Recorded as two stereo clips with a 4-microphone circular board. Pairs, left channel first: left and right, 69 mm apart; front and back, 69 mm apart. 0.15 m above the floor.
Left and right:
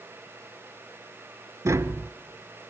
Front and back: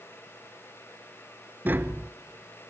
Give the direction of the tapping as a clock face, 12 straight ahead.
4 o'clock.